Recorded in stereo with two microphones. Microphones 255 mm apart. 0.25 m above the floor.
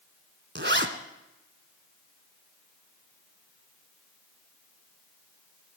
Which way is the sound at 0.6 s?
45° right (ahead or behind).